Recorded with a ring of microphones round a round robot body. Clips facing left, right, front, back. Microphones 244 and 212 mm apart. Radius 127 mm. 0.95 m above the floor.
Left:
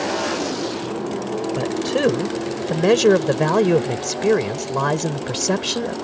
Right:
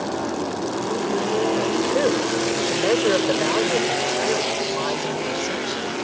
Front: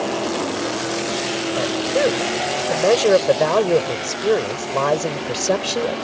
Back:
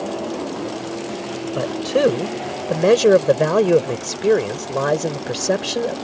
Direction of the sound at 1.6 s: 135° left.